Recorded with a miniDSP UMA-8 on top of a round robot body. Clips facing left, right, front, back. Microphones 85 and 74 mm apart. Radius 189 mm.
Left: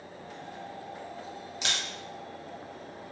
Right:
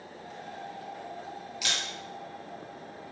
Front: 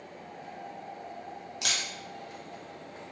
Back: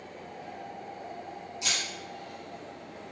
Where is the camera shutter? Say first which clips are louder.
Left 1 dB, even; 30° left, 0.6 m.